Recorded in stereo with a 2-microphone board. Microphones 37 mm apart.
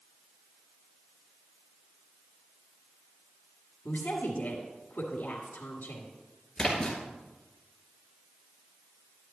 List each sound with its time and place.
3.9 s a woman speaking: 55° left (ahead or behind), 1.9 m
6.6 s a splash: 15° left (ahead or behind), 2.5 m